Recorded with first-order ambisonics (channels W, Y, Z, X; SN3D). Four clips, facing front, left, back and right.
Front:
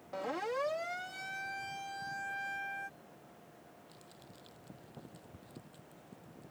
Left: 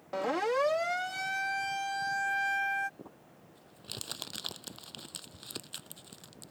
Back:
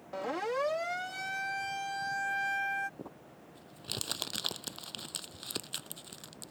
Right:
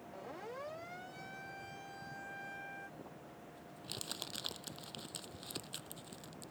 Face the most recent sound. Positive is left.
turn(degrees=165)